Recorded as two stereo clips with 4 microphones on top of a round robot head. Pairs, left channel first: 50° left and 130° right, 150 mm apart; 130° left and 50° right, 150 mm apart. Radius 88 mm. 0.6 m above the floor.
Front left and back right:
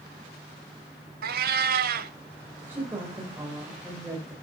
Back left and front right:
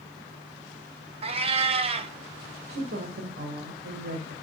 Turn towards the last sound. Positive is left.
turn(degrees=-55)